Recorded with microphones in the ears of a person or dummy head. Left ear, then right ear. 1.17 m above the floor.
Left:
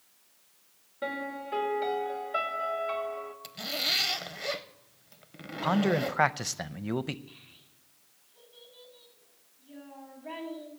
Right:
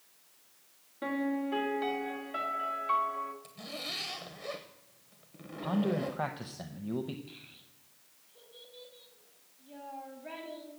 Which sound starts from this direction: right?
A child speaking, at 7.3 s.